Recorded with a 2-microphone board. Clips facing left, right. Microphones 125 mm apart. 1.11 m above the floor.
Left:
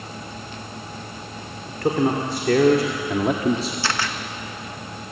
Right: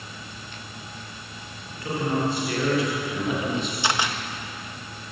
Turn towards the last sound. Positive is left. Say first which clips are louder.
# even
turn(degrees=-15)  # may be behind; listen again after turning